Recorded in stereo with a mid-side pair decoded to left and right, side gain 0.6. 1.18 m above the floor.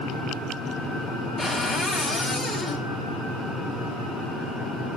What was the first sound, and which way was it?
A cupboard door, 20° left.